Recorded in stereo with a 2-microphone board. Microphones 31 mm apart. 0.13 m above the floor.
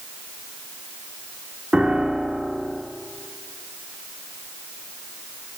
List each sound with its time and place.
1.7 s a piano: 35° right (ahead or behind), 1.7 m